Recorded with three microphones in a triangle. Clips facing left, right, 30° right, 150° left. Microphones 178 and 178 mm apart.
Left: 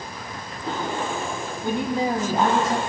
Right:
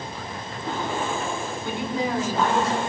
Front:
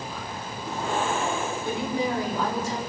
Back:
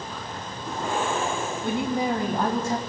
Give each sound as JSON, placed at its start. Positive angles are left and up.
{"t": 1.6, "sound": "a woman speaking", "azimuth_deg": 130, "distance_m": 3.5}